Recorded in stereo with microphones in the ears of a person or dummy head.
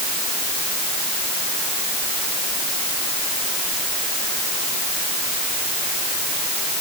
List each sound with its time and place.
Only background noise.